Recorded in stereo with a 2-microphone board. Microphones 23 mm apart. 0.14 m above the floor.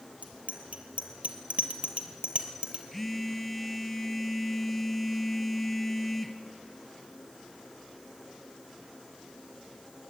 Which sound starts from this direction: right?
A bicycle bell, at 0.2 s.